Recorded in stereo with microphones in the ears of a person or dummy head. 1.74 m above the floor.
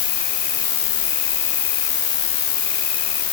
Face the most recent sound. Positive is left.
turn(degrees=50)  # may be behind; listen again after turning